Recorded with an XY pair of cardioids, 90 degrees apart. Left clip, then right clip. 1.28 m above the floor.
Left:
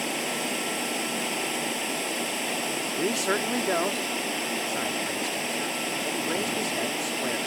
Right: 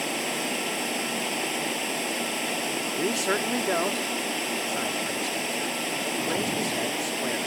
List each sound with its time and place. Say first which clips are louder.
0.0 s running water: even; 5° right
3.0 s a man speaking: even; straight ahead